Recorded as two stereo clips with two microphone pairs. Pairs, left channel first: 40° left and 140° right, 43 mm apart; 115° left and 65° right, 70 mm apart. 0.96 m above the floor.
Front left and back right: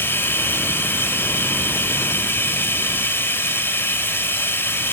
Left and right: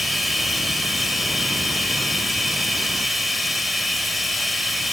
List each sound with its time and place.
0.0 s running water: 25° left, 1.8 m